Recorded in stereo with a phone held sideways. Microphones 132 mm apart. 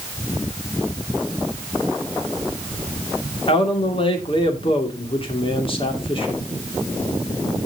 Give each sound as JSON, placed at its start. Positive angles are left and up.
{"t": 3.5, "sound": "a man speaking", "side_deg": 40, "distance_m": 2.5}